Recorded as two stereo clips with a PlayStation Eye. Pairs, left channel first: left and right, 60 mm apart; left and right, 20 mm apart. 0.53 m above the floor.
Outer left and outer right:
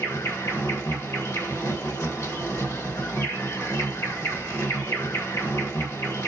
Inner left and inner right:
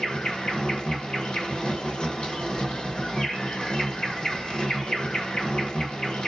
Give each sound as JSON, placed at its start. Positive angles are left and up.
{"t": 0.0, "sound": "an insect", "side_deg": 55, "distance_m": 1.2}